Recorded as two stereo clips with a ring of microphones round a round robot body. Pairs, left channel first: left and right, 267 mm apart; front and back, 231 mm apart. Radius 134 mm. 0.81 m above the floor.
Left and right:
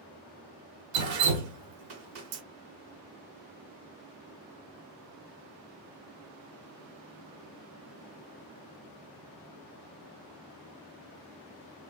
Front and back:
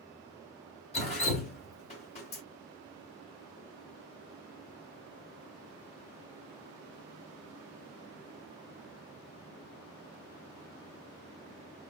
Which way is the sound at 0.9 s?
65° right.